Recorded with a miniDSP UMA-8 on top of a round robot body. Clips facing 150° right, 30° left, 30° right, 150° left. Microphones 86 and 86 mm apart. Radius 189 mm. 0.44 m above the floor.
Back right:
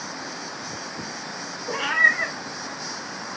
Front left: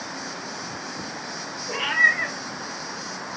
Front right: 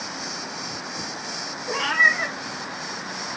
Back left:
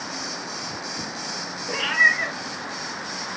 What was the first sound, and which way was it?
A cat meowing, 90° right.